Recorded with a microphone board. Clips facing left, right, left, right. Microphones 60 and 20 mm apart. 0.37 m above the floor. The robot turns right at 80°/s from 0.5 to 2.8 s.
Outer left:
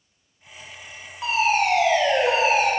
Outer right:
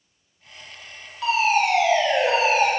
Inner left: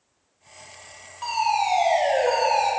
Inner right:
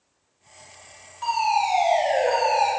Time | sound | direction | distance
1.2 | a fire alarm | 25° left | 2.5 m